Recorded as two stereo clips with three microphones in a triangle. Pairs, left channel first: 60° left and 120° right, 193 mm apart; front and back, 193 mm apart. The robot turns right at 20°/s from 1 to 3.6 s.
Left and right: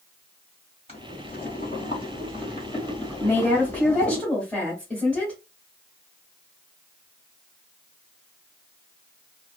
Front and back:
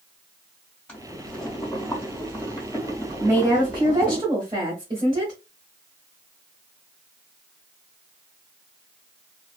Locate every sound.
0.9 s boiling: 80° left, 1.7 m; by 4.2 s 130° left, 1.7 m
3.2 s a woman speaking: 130° left, 1.3 m; by 5.3 s 135° left, 1.3 m